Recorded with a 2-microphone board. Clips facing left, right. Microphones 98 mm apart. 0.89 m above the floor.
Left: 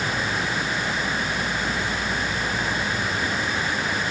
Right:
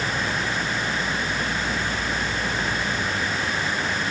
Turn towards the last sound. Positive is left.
No sound to turn to.